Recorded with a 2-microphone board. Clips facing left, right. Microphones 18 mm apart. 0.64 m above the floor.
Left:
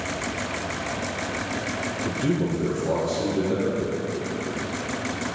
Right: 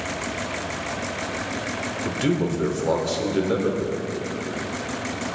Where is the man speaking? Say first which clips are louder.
Right 2 dB; 50° right (ahead or behind), 1.5 m.